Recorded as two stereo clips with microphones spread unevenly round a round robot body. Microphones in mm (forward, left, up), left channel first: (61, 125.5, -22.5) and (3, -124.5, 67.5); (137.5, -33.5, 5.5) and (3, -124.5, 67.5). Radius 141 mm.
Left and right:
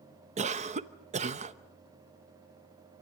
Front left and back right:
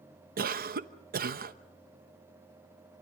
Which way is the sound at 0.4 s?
Straight behind.